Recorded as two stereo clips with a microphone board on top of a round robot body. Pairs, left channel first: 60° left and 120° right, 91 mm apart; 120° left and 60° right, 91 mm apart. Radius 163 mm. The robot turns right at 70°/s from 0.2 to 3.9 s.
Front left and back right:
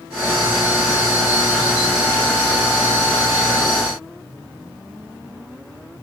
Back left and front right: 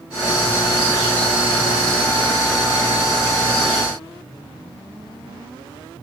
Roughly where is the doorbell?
No doorbell in this recording.